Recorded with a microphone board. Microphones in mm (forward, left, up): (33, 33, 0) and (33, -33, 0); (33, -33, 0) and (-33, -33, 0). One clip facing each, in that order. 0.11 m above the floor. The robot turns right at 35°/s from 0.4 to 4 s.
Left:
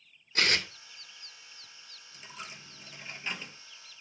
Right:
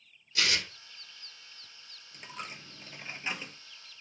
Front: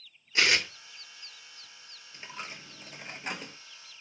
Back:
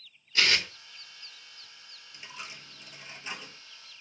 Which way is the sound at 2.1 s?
60° right.